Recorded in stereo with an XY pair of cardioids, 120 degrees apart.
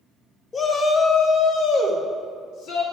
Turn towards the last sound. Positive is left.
turn(degrees=80)